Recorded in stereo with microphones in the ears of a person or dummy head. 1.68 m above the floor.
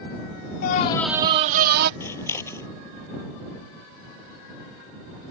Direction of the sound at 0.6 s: 50° left (ahead or behind).